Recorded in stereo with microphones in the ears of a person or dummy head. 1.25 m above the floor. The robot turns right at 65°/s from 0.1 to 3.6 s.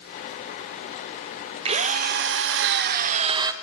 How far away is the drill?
About 0.6 m.